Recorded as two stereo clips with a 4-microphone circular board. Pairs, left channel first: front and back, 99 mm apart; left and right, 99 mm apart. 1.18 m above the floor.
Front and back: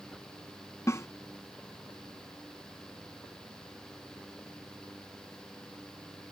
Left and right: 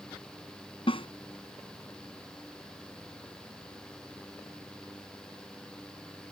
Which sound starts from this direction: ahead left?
A snare drum, at 0.9 s.